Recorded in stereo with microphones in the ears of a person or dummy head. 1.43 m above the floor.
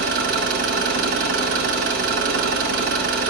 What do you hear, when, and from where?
0.0 s an engine running: 45° right (ahead or behind), 1.0 m